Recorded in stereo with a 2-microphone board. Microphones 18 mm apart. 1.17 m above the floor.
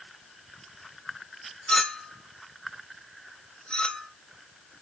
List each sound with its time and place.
1.7 s a clink: 90° left, 2.5 m